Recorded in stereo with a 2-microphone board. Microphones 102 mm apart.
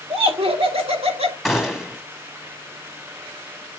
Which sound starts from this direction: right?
Laughter, at 0.1 s.